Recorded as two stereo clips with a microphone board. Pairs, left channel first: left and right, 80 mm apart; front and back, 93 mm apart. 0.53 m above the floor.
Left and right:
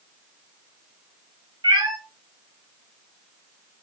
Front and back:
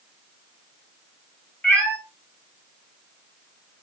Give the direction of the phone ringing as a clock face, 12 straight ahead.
No phone ringing in this recording.